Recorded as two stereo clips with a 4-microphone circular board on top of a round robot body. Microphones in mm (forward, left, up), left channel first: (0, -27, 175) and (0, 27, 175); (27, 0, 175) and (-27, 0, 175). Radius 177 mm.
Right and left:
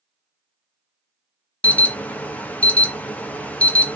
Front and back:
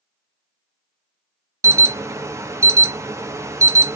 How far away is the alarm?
About 0.6 m.